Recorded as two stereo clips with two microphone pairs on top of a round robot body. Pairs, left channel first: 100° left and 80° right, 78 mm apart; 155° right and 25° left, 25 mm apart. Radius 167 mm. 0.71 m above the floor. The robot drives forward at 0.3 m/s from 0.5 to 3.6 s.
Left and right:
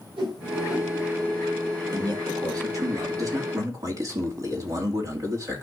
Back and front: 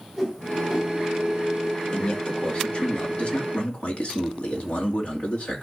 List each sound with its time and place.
0.2 s a whoosh: 70° right, 4.5 m
1.9 s a man speaking: 115° right, 2 m; by 5.6 s 125° right, 2.5 m